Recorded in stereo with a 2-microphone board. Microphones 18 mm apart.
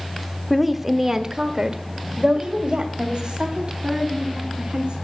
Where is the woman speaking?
Centre (ahead or behind), 0.9 m; by 5.0 s 80° right, 3.5 m.